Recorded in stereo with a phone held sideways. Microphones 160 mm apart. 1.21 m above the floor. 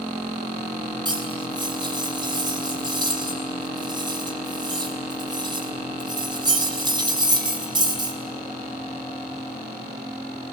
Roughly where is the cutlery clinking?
Right.